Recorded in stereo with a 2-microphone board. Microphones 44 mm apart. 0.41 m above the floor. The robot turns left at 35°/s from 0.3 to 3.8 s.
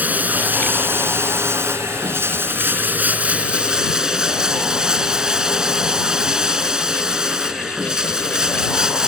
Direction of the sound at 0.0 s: 40° right.